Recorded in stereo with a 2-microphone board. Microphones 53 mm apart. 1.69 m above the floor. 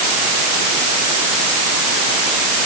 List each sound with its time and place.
Only background noise.